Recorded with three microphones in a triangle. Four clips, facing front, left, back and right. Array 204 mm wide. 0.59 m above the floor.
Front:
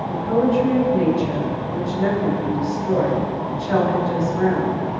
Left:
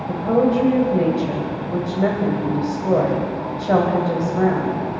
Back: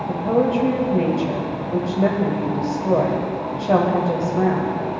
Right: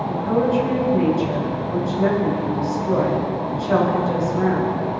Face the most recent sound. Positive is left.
turn(degrees=140)